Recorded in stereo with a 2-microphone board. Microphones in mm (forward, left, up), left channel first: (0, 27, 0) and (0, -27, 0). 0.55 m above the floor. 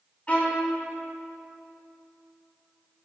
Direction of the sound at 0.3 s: 30° left (ahead or behind).